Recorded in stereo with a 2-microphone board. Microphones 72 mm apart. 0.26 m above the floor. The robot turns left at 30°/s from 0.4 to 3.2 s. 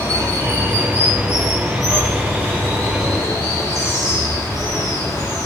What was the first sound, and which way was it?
Running water, 140° right.